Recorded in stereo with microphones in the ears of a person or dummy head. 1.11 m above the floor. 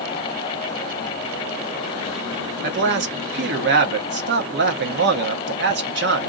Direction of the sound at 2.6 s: 60° right (ahead or behind).